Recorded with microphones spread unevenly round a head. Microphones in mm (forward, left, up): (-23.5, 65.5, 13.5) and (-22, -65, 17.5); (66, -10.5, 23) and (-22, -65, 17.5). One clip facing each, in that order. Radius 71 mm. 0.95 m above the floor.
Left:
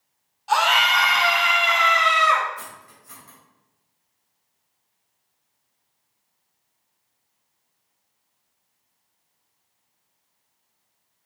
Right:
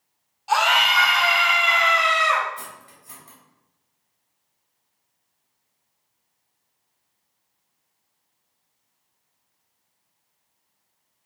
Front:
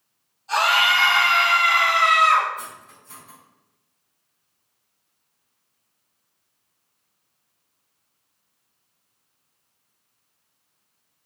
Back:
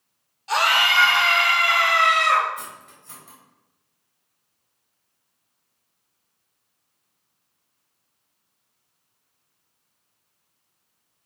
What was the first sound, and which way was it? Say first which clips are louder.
A scream: even, front 1 dB; 170° right.